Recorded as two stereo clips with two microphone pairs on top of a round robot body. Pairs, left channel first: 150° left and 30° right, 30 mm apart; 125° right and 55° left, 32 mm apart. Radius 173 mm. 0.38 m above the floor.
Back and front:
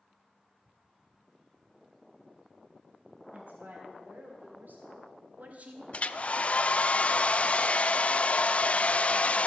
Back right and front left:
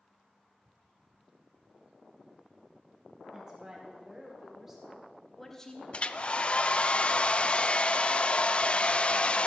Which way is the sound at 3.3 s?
15° right.